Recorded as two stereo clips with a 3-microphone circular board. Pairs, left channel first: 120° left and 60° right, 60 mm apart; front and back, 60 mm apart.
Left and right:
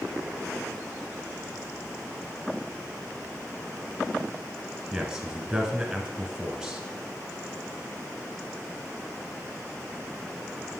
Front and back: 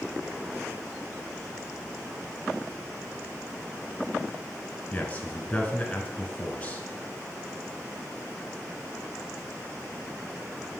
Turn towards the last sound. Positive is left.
turn(degrees=5)